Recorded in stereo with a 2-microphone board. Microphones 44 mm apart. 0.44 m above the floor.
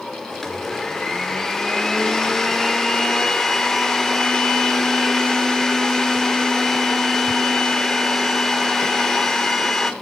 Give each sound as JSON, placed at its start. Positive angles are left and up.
{"t": 0.3, "sound": "a blender", "side_deg": 10, "distance_m": 0.9}